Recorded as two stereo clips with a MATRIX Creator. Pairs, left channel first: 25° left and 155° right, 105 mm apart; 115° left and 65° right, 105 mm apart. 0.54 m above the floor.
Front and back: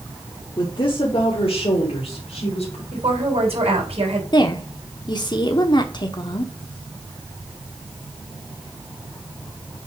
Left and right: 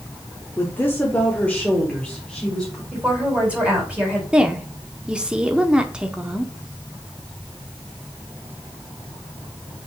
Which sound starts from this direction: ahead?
A woman speaking, at 4.3 s.